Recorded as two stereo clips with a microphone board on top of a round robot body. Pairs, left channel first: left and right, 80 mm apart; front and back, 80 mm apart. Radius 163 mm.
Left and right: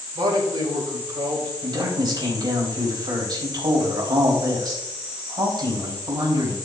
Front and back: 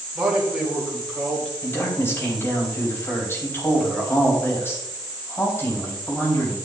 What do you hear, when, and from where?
0.1 s a man speaking: 95° right, 3 m; by 1.5 s 80° right, 3 m
1.6 s a man speaking: 60° right, 4 m